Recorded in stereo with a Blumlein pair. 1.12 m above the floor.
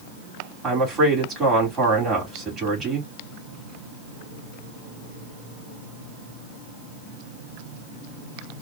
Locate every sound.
0.6 s a woman speaking: 20° right, 3.5 m